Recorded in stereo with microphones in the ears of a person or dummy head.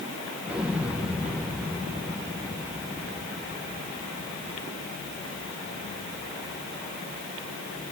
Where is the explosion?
10° right (ahead or behind), 1.3 m.